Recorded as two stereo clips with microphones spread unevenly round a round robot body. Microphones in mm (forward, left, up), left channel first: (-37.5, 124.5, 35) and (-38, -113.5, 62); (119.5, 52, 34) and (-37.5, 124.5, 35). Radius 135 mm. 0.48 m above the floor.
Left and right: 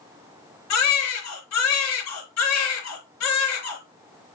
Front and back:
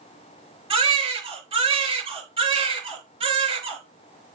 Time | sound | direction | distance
0.7 | a baby crying | 100° left | 5.5 m